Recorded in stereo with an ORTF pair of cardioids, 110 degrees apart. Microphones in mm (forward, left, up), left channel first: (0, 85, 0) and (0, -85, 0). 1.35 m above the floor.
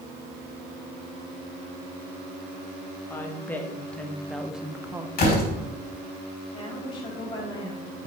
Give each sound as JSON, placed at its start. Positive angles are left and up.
{"t": 3.1, "sound": "a woman speaking", "azimuth_deg": 15, "distance_m": 1.5}
{"t": 5.2, "sound": "a door slam", "azimuth_deg": 55, "distance_m": 4.0}
{"t": 6.5, "sound": "a woman speaking", "azimuth_deg": 25, "distance_m": 4.0}